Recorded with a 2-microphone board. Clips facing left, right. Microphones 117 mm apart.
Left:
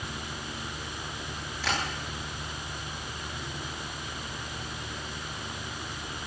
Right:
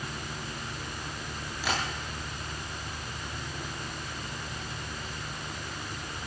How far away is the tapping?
About 8.5 m.